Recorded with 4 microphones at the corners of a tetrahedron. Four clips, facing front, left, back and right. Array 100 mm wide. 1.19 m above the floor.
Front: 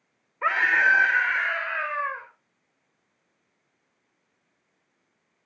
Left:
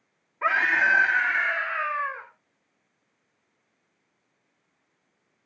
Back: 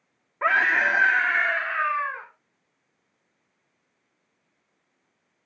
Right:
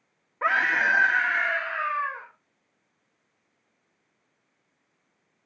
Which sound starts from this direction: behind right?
A scream, at 0.4 s.